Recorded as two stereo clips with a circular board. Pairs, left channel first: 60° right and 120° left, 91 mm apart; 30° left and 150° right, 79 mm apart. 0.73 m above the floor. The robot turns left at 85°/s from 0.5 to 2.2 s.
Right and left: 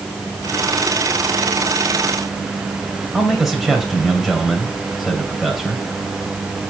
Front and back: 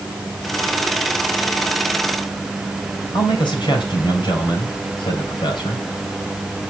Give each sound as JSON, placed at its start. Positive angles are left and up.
{"t": 3.1, "sound": "a man speaking", "azimuth_deg": 30, "distance_m": 3.0}